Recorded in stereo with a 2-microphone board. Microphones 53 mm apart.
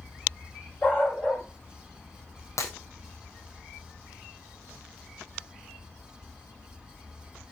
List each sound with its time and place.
0.8 s a dog barking: 30° left (ahead or behind), 7 m
2.6 s breaking glass: 75° left (ahead or behind), 4 m